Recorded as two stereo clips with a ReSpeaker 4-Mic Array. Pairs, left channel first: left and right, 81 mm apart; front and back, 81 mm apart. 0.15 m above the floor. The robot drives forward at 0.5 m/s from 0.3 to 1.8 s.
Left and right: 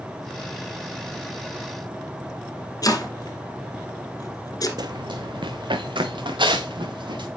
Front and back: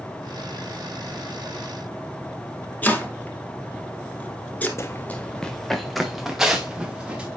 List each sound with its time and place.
2.8 s chopping: 65° left, 1.5 m
4.8 s running footsteps: 55° right, 0.6 m; by 7.3 s 100° right, 2 m